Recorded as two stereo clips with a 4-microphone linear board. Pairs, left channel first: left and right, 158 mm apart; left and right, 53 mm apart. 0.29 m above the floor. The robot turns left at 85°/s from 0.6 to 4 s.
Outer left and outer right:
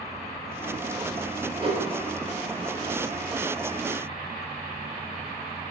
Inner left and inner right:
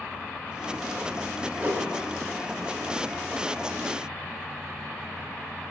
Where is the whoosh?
30° right (ahead or behind), 3 m; by 1.9 s 50° right (ahead or behind), 3 m.